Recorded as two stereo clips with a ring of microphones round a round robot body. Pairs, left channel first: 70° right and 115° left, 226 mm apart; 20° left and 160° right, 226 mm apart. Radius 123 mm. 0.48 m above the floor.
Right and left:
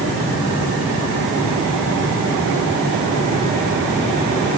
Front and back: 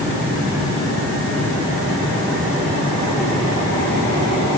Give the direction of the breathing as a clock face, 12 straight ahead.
No breathing in this recording.